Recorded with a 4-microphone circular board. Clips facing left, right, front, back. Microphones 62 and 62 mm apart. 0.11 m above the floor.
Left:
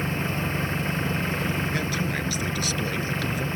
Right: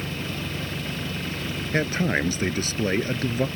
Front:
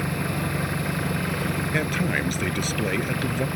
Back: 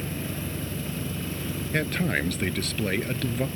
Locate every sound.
0.0 s an engine running: 30° left
1.7 s a man speaking: 80° right